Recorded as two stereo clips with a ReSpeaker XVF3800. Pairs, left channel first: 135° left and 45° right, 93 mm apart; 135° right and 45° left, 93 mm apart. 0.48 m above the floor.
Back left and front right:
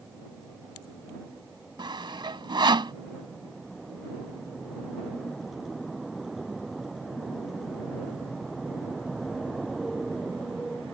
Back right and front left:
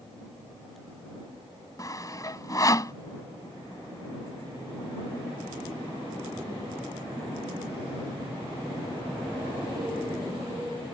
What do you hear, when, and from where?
1.8 s sawing: 80° right